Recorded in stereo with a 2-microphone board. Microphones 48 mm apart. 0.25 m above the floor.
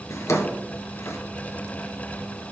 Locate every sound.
0.1 s a drawer: 80° left, 1.6 m